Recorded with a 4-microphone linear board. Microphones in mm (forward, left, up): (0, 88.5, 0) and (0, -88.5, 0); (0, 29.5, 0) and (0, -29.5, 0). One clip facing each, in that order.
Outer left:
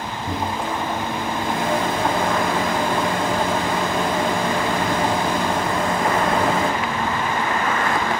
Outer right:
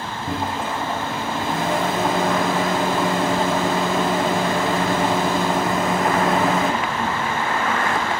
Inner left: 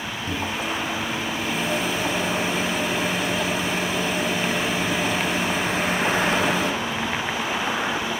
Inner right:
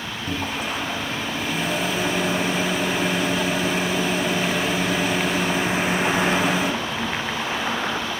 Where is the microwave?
Centre (ahead or behind), 1.4 m.